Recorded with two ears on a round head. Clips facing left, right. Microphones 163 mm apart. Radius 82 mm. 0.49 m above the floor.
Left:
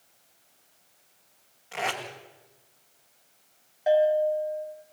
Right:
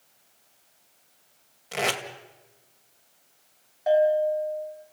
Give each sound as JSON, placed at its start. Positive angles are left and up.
{"t": 1.7, "sound": "tape being pulled", "side_deg": -50, "distance_m": 2.0}
{"t": 3.9, "sound": "a bell", "side_deg": 5, "distance_m": 3.5}